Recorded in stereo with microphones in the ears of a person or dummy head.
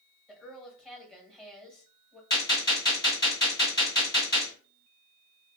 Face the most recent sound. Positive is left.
turn(degrees=20)  # may be behind; listen again after turning